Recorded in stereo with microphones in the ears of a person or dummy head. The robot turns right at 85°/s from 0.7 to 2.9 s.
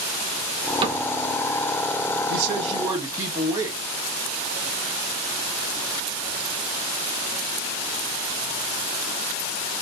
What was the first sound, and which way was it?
A cupboard door, 25° right (ahead or behind).